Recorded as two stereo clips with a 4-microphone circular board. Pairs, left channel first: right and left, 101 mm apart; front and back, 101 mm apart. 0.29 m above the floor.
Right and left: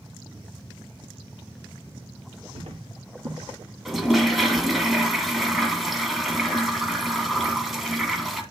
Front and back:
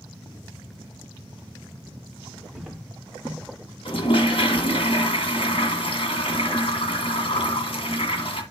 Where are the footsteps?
90° left, 2.5 m; by 4.7 s 60° left, 3 m.